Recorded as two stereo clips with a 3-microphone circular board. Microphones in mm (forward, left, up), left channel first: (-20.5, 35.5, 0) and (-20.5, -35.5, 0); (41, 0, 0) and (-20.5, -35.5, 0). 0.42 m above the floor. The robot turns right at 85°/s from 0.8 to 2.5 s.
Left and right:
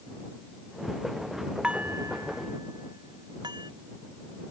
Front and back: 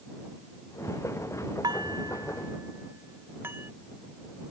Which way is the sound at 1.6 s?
165° right.